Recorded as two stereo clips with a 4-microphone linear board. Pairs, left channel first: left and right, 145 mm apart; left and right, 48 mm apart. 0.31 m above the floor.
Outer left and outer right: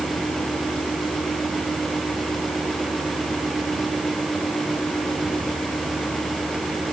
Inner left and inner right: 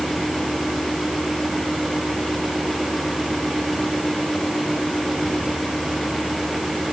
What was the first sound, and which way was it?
Only background noise.